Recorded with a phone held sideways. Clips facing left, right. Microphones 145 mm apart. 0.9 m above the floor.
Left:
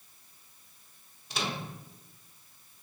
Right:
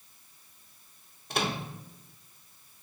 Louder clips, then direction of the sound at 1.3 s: Right 4 dB; 55° right (ahead or behind).